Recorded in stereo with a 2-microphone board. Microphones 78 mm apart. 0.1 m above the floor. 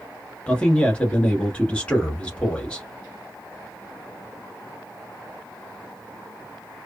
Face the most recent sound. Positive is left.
turn(degrees=15)  # may be behind; listen again after turning